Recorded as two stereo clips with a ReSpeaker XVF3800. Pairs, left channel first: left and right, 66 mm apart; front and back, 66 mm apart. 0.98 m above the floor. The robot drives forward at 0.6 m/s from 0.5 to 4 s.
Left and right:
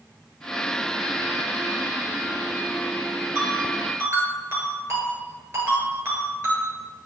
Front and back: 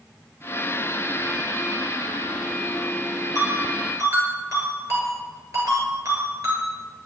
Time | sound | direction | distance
3.4 | a ringtone | 145° right | 8 m